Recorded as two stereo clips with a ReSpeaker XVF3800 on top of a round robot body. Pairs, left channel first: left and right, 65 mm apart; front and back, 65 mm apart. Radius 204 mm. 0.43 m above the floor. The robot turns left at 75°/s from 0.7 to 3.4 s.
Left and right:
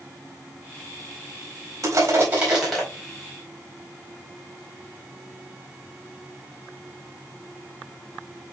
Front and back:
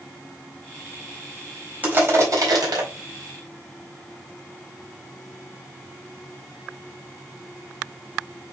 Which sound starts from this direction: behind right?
Crushing, at 1.8 s.